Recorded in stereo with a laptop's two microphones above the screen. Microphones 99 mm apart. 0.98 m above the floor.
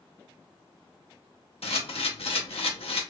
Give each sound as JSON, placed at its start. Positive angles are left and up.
{"t": 1.6, "sound": "a camera shutter", "side_deg": 80, "distance_m": 0.7}